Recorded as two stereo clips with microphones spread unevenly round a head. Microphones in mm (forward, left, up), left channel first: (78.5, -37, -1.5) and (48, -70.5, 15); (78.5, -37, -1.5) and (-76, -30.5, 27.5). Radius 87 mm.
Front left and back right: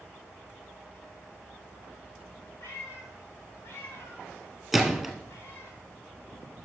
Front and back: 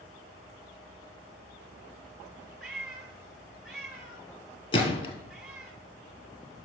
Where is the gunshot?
60° right, 2.5 m.